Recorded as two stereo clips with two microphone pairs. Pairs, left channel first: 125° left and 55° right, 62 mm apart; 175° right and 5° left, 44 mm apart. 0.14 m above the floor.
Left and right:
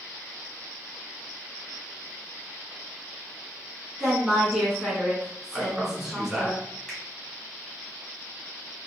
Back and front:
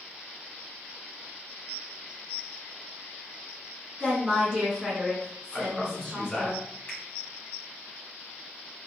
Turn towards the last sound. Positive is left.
turn(degrees=-160)